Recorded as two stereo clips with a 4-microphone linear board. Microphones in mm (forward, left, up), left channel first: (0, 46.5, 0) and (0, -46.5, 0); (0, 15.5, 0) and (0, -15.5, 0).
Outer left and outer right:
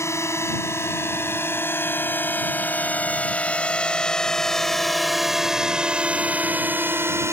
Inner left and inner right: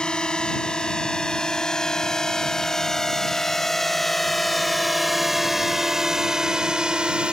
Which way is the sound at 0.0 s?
30° left (ahead or behind).